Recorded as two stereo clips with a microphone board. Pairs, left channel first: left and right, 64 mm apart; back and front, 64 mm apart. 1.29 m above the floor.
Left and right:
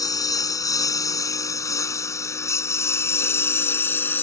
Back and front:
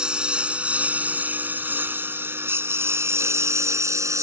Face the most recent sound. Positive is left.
turn(degrees=35)